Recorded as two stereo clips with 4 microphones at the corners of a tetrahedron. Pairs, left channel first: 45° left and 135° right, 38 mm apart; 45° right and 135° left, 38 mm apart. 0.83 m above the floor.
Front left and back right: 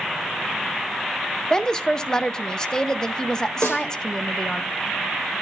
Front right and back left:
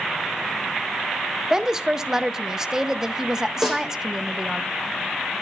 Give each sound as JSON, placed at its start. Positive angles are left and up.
{"t": 1.5, "sound": "a woman speaking", "azimuth_deg": 80, "distance_m": 0.6}
{"t": 3.6, "sound": "a snare drum", "azimuth_deg": 40, "distance_m": 4.5}